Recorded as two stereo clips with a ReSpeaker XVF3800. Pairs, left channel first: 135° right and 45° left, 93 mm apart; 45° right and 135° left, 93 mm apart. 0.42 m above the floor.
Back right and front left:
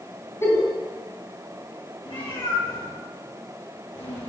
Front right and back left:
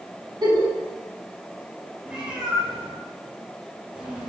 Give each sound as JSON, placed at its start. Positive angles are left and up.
{"t": 0.4, "sound": "a giggle", "azimuth_deg": 170, "distance_m": 2.0}
{"t": 2.0, "sound": "a cat meowing", "azimuth_deg": -145, "distance_m": 3.5}